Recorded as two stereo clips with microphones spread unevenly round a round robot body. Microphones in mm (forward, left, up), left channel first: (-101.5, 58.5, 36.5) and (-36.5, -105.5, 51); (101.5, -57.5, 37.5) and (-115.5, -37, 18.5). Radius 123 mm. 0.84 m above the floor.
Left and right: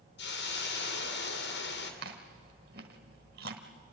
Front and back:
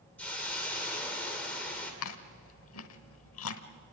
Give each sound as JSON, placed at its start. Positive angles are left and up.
{"t": 0.2, "sound": "a hiss", "azimuth_deg": 80, "distance_m": 2.5}
{"t": 2.0, "sound": "chewing", "azimuth_deg": -20, "distance_m": 1.1}